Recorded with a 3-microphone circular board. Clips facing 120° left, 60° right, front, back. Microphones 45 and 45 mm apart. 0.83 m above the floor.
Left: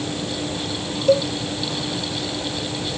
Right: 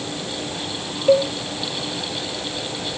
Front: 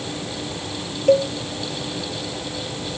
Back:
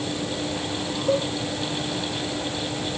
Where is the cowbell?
10° left, 0.8 m.